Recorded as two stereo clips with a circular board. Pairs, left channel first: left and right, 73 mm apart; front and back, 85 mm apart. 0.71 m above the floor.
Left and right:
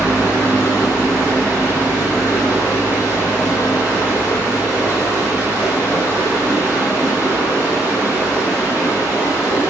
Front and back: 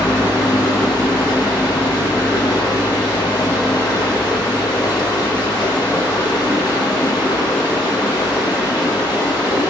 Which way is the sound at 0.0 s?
30° right.